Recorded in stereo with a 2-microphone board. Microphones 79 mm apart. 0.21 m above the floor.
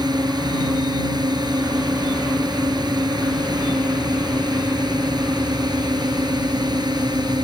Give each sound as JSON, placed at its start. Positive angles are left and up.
{"t": 0.0, "sound": "a drone", "side_deg": -60}